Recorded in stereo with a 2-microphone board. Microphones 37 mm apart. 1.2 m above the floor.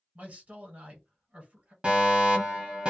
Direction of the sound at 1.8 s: 25° right (ahead or behind).